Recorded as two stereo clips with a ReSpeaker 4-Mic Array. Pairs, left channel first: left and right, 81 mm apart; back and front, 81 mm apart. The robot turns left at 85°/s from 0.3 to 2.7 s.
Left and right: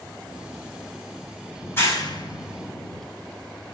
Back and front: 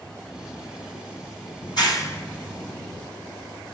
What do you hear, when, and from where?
1.6 s a clap: 160° left, 5 m; by 3.0 s 70° left, 5 m